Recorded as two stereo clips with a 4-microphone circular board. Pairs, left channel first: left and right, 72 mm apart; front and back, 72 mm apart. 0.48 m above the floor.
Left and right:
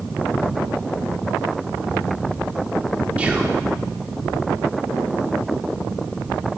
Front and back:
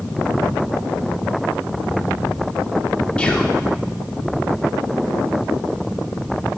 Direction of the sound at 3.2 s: 50° right.